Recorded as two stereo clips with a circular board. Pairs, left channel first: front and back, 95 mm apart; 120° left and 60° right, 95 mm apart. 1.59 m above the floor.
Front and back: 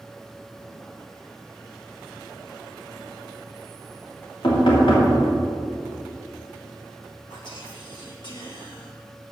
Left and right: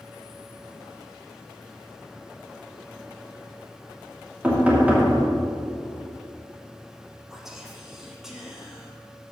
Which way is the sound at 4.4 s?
10° left.